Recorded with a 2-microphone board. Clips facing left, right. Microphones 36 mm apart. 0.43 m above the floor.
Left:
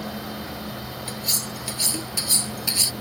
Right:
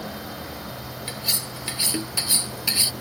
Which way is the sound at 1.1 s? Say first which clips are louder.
Right 1 dB; 25° right (ahead or behind).